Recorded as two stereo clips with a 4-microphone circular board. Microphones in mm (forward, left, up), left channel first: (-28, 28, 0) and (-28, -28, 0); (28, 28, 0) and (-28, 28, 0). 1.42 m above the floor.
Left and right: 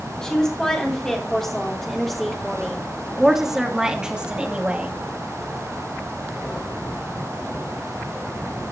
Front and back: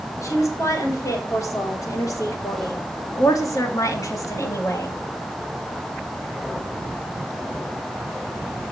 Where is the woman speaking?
15° left, 4 m; by 5.0 s 25° right, 2 m.